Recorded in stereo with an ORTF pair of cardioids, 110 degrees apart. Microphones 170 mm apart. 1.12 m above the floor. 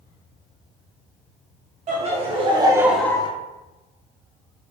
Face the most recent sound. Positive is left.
turn(degrees=40)